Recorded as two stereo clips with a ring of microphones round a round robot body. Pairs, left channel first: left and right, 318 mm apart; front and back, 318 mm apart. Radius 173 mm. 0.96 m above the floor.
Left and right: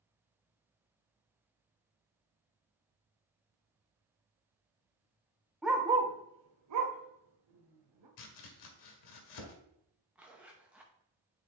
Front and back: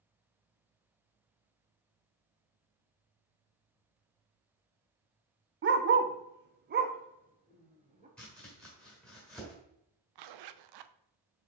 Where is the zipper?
175° right, 0.6 m.